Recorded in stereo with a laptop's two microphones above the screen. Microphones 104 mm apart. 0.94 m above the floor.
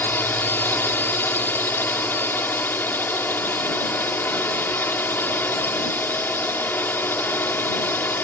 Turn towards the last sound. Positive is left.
turn(degrees=20)  # may be behind; listen again after turning